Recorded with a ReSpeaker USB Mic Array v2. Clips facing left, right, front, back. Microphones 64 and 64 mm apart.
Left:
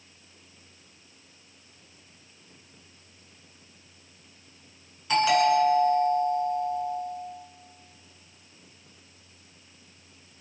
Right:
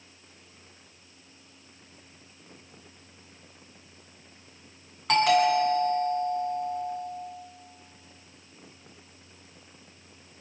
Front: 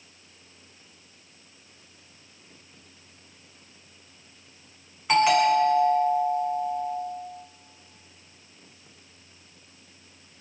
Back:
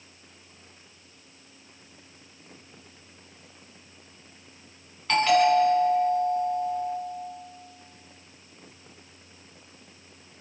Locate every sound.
5.1 s a doorbell: 75° right, 8.5 m